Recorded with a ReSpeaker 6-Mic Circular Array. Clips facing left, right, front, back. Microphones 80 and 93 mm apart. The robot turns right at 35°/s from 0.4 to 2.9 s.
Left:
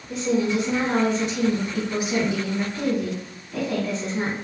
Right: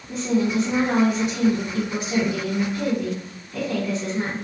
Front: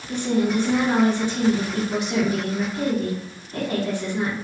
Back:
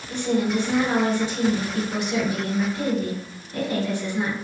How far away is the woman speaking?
About 1.6 m.